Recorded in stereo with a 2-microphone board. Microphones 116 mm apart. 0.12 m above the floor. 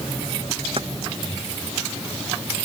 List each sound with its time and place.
0.8 s keys jangling: 50° right (ahead or behind)